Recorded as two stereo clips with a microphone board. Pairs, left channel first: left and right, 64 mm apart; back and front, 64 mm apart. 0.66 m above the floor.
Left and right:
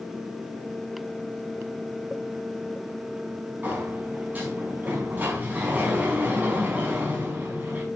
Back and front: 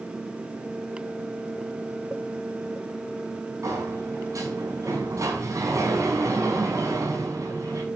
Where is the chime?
I don't hear a chime.